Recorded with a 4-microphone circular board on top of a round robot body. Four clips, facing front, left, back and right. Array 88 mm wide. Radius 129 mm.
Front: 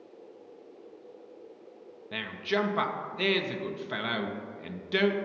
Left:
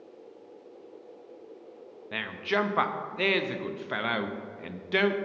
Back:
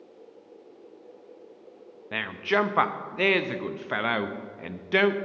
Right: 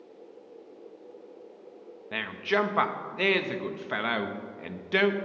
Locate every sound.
2.1 s a man speaking: 170° right, 0.6 m